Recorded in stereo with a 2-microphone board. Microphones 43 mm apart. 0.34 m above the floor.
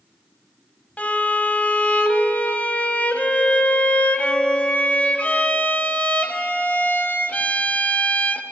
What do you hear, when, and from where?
1.0 s a violin: 35° left (ahead or behind), 0.7 m